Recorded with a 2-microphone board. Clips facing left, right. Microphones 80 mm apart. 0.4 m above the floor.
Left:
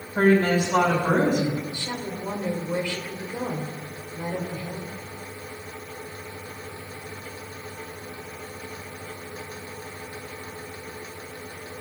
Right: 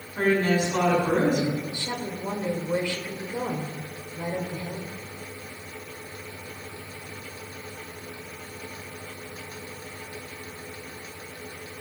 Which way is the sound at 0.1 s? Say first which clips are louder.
Left 3 dB; 50° left (ahead or behind).